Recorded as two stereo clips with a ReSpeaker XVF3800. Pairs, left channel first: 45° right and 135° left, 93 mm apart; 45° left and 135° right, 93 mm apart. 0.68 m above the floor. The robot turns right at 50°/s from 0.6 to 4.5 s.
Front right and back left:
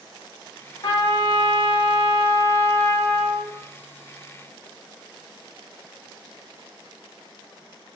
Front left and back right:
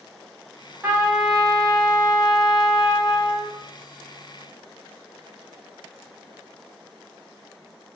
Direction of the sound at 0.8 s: 70° right.